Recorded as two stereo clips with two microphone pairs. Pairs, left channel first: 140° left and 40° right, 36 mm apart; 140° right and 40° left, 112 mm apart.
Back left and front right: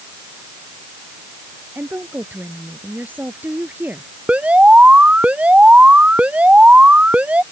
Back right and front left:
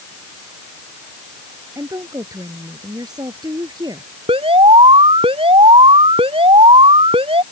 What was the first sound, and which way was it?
A woman speaking, 15° right.